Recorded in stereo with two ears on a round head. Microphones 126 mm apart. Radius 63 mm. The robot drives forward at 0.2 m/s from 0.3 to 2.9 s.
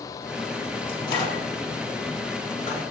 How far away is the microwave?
About 1.0 m.